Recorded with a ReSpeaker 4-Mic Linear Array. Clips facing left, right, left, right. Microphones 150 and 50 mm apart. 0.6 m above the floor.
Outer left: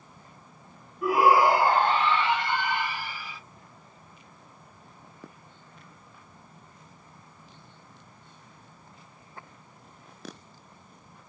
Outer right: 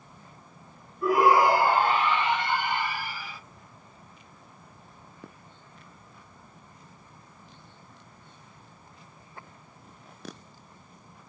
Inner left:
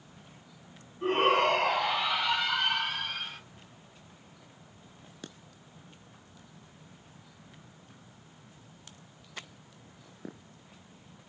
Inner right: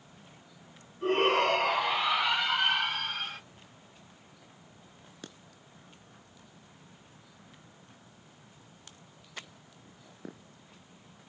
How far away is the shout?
About 1.2 m.